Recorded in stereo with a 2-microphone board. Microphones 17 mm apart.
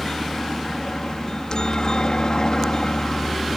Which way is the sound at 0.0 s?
55° left (ahead or behind).